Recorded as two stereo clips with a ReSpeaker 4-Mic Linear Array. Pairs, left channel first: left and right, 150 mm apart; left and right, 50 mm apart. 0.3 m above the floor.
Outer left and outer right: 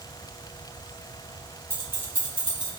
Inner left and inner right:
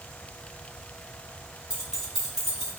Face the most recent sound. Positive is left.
turn(degrees=-10)  # may be behind; listen again after turning